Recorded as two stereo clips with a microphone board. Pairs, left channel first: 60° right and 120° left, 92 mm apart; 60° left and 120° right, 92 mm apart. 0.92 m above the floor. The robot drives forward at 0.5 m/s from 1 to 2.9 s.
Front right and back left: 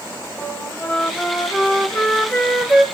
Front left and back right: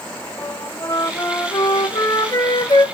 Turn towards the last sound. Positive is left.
turn(degrees=35)